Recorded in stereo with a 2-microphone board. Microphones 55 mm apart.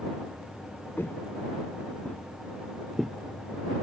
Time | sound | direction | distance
1.0 | footsteps | 40° left (ahead or behind) | ?